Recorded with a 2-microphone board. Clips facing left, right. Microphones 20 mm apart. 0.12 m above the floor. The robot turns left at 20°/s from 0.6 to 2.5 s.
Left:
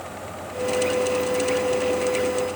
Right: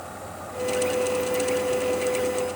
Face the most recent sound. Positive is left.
No sound to turn to.